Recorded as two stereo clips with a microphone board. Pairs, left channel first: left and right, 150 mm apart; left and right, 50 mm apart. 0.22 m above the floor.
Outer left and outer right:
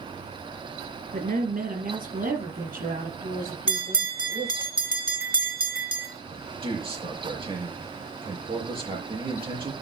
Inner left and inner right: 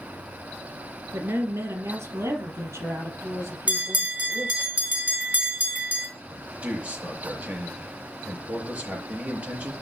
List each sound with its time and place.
1.1 s a woman speaking: 70° right (ahead or behind), 3.5 m; by 4.7 s 80° right, 7 m
3.7 s a bell: 35° right (ahead or behind), 2.5 m
6.3 s a man speaking: 35° right (ahead or behind), 5 m